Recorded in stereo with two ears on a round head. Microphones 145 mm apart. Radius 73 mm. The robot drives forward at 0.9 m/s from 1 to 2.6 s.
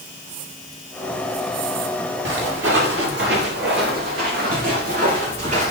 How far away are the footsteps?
About 4.5 m.